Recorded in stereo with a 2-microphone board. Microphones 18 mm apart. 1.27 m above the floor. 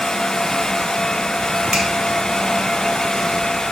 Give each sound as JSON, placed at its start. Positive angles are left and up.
{"t": 1.7, "sound": "a finger snap", "side_deg": -70, "distance_m": 1.5}